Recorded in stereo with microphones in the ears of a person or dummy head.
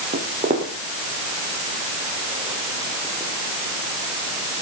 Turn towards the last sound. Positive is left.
turn(degrees=20)  # may be behind; listen again after turning